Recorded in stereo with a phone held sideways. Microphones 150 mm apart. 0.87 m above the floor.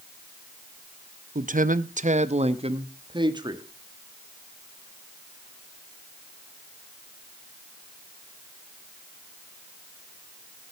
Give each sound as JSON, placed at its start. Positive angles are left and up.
{"t": 1.4, "sound": "a man speaking", "side_deg": -60, "distance_m": 0.7}